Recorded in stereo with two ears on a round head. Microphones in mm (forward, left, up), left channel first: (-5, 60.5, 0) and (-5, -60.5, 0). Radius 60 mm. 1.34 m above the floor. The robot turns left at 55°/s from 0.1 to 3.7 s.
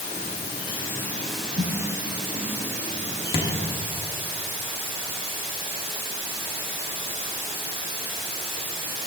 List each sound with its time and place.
0.0 s running water: 70° left, 2 m; by 9.1 s 130° right, 2 m
1.6 s a snare drum: 60° right (ahead or behind), 2.0 m; by 1.8 s 55° right (ahead or behind), 2.0 m
3.3 s a thud: 45° left (ahead or behind), 0.9 m